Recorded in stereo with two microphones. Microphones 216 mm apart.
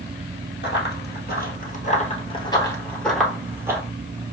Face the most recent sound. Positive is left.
turn(degrees=-15)  # may be behind; listen again after turning